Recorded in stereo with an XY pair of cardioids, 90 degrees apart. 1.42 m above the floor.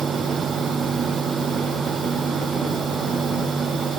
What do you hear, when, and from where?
0.0 s a fan: 55° right